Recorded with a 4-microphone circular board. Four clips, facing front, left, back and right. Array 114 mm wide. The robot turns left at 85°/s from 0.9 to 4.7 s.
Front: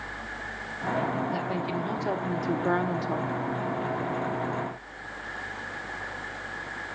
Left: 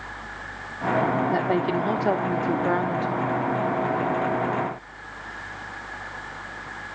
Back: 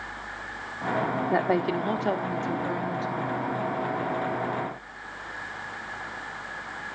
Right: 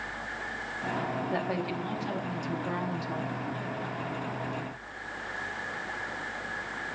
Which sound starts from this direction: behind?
A woman speaking, at 1.3 s.